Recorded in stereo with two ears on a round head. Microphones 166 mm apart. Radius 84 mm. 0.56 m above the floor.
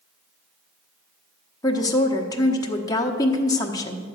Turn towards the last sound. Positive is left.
turn(degrees=20)  # may be behind; listen again after turning